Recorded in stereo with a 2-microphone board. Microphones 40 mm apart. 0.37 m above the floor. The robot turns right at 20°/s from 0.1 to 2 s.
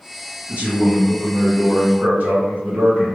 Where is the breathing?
I don't hear breathing.